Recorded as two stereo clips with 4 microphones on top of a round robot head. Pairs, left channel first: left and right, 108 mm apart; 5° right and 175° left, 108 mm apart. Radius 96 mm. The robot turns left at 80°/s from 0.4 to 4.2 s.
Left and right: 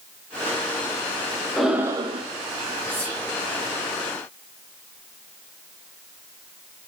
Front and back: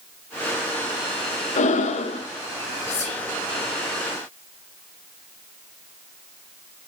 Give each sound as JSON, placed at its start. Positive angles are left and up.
{"t": 1.6, "sound": "breathing", "azimuth_deg": 5, "distance_m": 0.8}
{"t": 2.9, "sound": "whispering", "azimuth_deg": 20, "distance_m": 0.9}